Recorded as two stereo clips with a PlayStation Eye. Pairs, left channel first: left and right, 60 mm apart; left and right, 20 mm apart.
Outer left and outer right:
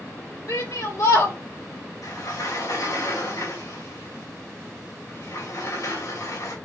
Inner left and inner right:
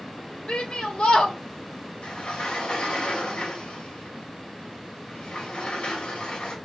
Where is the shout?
85° left, 3 m.